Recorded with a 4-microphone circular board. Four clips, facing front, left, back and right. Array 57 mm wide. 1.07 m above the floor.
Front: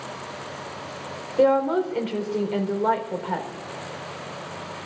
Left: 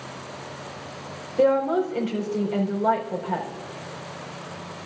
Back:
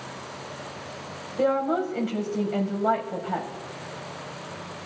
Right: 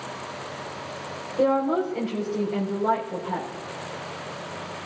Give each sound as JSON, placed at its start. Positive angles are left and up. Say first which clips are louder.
{"t": 1.4, "sound": "a woman speaking", "louder": "left 2 dB, front 4 dB", "azimuth_deg": 15, "distance_m": 4.0}